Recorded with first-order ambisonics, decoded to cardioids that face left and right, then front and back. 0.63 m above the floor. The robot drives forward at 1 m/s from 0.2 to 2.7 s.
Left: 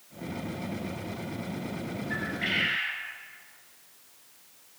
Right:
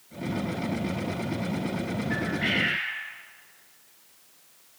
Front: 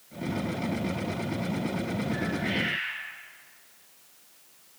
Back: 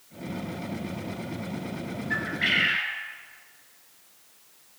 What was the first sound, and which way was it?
A bird, 175° right.